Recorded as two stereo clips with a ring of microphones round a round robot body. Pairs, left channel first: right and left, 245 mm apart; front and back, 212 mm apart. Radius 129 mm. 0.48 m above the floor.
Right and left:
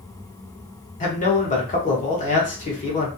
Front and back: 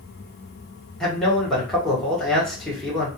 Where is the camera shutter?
I don't hear a camera shutter.